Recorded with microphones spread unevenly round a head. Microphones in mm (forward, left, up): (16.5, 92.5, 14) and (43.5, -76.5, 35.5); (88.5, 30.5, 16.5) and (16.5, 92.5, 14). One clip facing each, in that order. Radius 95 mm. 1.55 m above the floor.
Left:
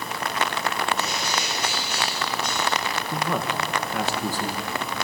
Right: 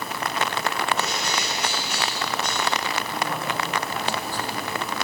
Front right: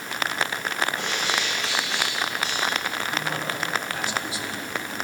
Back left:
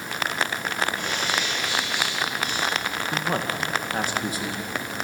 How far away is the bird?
About 6 m.